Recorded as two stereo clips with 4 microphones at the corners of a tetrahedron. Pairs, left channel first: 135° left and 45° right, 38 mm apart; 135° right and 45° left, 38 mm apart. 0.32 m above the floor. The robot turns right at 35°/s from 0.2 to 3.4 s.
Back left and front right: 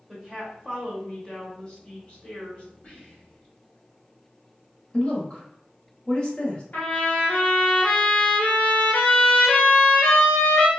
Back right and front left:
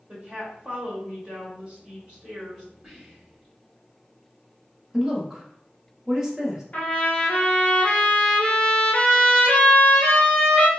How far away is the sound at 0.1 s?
About 1.3 m.